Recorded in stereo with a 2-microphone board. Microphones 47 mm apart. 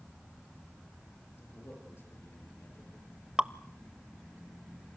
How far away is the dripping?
About 0.7 m.